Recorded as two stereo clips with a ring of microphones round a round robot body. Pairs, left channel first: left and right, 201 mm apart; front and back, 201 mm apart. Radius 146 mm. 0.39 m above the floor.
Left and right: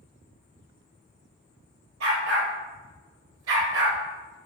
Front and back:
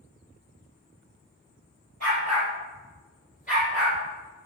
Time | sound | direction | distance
2.0 | a dog barking | 115° right | 2.5 m